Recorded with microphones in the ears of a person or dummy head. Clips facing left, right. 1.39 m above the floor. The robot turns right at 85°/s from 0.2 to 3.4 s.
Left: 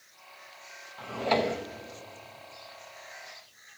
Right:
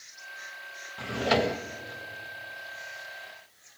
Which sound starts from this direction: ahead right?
A drawer, at 1.0 s.